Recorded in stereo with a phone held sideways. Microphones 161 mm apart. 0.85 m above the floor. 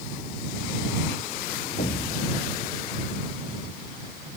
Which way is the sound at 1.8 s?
75° left (ahead or behind).